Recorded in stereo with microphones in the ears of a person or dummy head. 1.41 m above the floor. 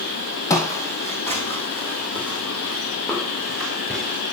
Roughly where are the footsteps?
Left.